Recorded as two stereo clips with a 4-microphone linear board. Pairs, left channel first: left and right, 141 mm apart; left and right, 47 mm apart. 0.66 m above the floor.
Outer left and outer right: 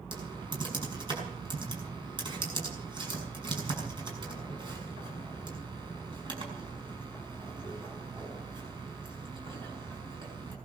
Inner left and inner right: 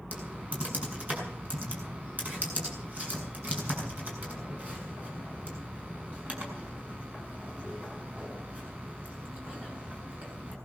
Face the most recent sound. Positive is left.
turn(degrees=-35)  # may be behind; listen again after turning